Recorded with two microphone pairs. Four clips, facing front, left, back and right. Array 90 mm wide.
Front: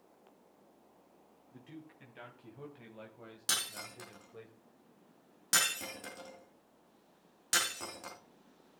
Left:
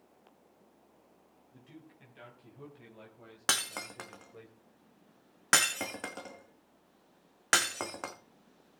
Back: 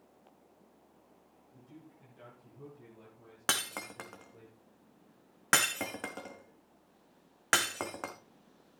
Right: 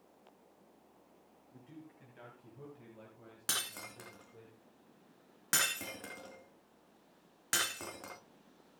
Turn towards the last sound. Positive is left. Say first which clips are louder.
# left 7 dB, back 6 dB
turn(degrees=135)